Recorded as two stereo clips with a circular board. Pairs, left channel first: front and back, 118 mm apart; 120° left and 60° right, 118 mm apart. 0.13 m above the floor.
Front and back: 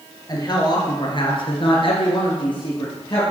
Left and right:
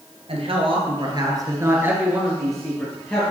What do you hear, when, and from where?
0.3 s a man speaking: 50° right, 2 m; by 3.2 s 45° left, 2.5 m